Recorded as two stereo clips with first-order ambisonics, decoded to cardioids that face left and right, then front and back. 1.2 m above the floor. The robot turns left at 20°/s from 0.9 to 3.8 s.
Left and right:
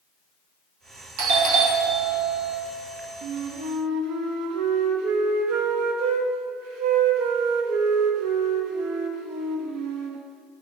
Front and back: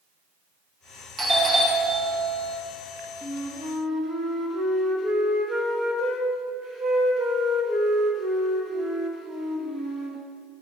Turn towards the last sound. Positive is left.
turn(degrees=-110)